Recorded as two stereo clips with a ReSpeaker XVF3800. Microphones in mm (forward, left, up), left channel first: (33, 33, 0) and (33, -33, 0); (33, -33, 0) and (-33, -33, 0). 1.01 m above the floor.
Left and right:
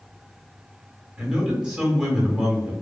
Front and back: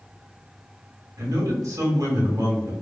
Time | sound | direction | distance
1.2 | a man speaking | 165° right | 1.2 m